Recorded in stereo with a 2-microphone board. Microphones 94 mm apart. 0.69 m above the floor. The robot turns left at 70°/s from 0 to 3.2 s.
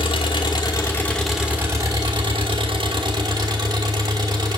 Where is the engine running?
90° left, 1.3 m; by 4.6 s 135° right, 1.3 m.